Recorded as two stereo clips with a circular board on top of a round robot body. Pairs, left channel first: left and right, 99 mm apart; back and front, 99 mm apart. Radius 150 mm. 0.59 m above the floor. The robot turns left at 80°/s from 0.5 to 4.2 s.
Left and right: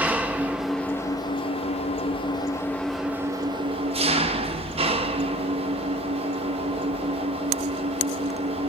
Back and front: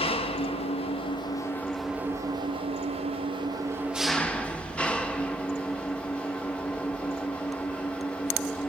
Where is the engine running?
165° right, 1.4 m; by 8.7 s 100° right, 1.4 m.